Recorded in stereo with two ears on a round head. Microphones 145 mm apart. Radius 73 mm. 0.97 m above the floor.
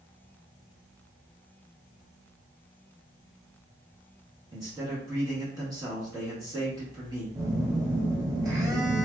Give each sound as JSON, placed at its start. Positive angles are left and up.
{"t": 4.5, "sound": "a man speaking", "side_deg": -20, "distance_m": 1.0}
{"t": 7.3, "sound": "a phone buzzing", "side_deg": -20, "distance_m": 1.0}